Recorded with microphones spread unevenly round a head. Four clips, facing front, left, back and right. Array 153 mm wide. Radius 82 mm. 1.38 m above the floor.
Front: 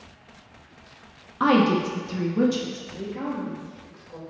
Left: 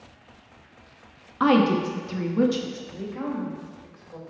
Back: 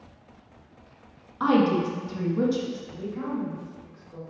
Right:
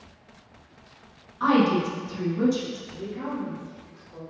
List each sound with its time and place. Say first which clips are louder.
1.4 s a woman speaking: left 1 dB, front 2 dB; 50° left, 1.1 m
2.9 s a woman speaking: left 3 dB, front 1 dB; 55° left, 2.5 m